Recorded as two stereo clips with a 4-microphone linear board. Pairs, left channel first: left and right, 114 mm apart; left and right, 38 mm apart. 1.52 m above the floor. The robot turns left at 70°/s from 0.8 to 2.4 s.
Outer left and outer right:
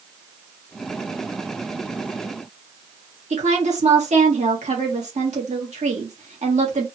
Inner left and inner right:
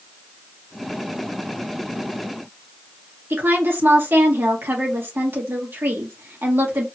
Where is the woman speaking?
80° right, 1.6 m.